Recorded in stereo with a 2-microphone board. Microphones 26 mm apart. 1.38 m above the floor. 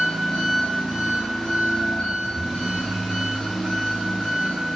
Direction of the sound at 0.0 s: 50° left (ahead or behind).